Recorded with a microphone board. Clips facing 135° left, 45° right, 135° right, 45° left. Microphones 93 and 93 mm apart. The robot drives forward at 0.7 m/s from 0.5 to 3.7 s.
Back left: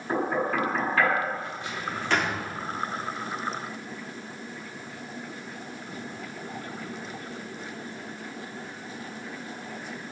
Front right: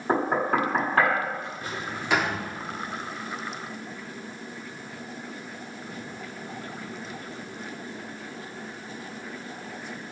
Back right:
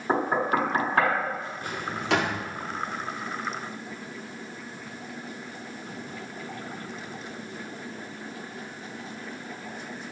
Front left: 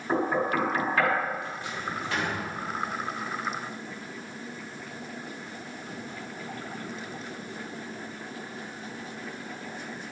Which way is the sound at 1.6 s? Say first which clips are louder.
Back left 1 dB, back right 1 dB; 90° right.